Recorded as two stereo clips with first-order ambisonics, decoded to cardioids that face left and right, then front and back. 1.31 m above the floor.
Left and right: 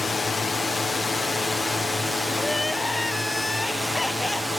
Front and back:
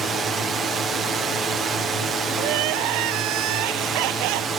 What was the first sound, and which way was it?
A drone, 150° left.